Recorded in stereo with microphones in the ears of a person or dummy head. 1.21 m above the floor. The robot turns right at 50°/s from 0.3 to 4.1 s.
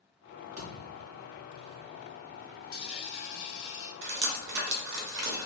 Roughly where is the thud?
Right.